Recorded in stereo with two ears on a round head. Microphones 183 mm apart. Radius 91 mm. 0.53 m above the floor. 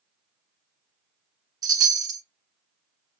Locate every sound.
1.6 s a chime: 20° right (ahead or behind), 1.0 m